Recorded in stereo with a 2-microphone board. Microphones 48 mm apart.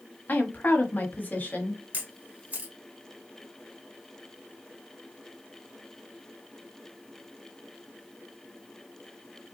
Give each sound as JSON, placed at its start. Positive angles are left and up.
{"t": 0.3, "sound": "a woman speaking", "side_deg": 40, "distance_m": 1.2}
{"t": 1.9, "sound": "a camera shutter", "side_deg": -40, "distance_m": 1.6}